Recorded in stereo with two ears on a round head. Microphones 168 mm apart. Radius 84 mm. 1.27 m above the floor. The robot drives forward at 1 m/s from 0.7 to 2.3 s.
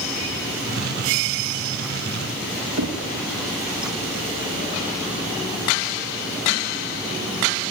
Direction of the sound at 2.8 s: 80° right.